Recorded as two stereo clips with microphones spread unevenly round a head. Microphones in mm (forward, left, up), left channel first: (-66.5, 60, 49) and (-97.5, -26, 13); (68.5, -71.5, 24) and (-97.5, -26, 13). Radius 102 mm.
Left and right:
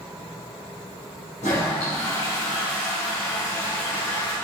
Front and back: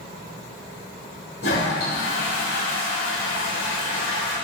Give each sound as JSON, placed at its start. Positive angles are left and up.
{"t": 1.4, "sound": "a toilet flushing", "azimuth_deg": 30, "distance_m": 3.0}